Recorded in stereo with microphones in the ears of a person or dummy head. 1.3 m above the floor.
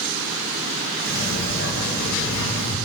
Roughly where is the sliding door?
Left.